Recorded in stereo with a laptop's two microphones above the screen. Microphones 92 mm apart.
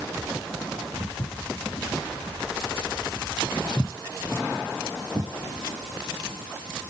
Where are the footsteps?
65° left (ahead or behind), 3.5 m; by 5.3 s 40° right (ahead or behind), 1.6 m.